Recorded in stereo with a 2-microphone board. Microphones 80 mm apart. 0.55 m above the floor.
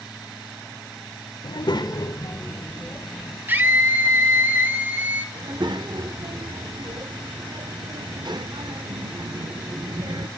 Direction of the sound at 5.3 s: 65° right (ahead or behind).